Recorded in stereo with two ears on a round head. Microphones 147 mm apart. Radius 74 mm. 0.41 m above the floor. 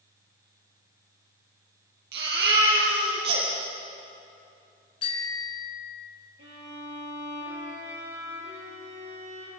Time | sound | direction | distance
2.1 | a baby crying | 75° right (ahead or behind) | 6 m
5.0 | a bicycle bell | 35° left (ahead or behind) | 3.5 m
6.4 | a violin | 80° right | 8.5 m